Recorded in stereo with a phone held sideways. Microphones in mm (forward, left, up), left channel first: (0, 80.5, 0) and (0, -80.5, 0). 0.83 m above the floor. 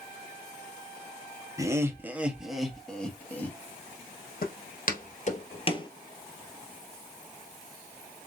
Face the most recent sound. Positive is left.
turn(degrees=25)  # may be behind; listen again after turning